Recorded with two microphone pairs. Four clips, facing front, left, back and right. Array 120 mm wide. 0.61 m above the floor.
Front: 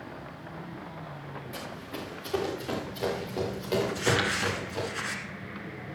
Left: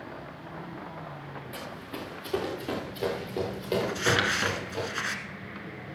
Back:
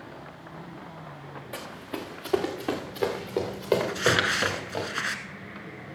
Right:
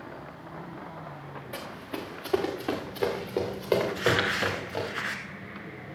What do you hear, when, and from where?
1.5 s running footsteps: 170° right, 3 m; by 4.8 s 160° right, 5 m
3.8 s crumpling: 155° left, 1.4 m